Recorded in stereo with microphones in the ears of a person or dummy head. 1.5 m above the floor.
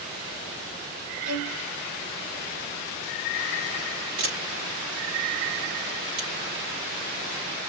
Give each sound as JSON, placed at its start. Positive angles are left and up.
{"t": 1.2, "sound": "a violin", "side_deg": -75, "distance_m": 4.0}
{"t": 4.2, "sound": "a camera shutter", "side_deg": -45, "distance_m": 4.5}